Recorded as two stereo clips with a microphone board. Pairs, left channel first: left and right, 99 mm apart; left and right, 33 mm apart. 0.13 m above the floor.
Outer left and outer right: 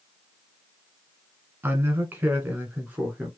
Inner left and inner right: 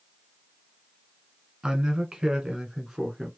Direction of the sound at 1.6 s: 20° right (ahead or behind).